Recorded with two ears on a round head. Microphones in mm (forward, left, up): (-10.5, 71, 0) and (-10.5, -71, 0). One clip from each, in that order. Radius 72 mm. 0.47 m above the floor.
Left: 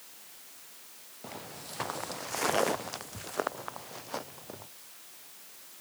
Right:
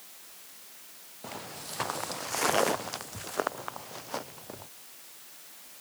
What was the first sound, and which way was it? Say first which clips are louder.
Footsteps: right 3 dB; 15° right (ahead or behind).